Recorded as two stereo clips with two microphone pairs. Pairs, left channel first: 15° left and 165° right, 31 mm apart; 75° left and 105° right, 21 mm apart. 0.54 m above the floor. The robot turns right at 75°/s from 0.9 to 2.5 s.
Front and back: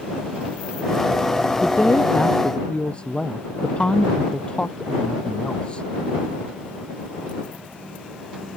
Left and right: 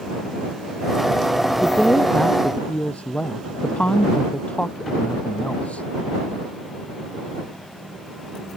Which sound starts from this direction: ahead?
A woman speaking, at 1.6 s.